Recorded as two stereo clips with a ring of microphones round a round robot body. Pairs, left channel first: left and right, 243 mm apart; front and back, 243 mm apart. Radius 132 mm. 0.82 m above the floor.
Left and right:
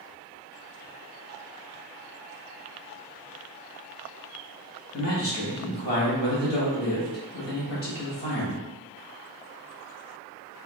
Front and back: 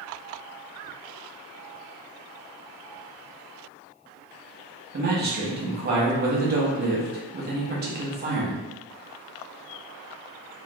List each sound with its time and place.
4.9 s a man speaking: 135° left, 0.8 m